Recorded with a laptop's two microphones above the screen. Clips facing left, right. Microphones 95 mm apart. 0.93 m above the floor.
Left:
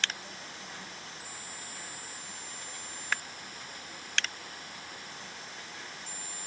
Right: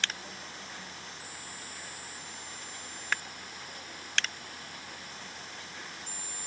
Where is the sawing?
I don't hear sawing.